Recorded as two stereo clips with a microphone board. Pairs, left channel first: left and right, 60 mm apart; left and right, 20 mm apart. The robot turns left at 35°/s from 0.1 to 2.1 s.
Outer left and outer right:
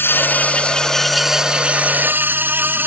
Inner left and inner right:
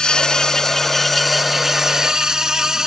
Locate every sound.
0.0 s an insect: 35° left; by 2.9 s 35° right